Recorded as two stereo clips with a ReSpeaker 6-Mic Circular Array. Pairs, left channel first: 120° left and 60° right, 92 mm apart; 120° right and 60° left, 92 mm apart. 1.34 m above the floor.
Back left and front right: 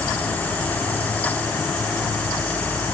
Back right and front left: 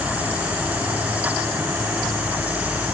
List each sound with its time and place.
Only background noise.